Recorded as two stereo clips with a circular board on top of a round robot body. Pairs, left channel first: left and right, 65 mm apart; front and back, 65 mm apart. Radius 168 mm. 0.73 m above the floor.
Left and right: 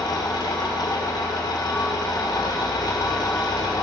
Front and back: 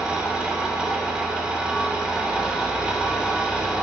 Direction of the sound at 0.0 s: 105° left.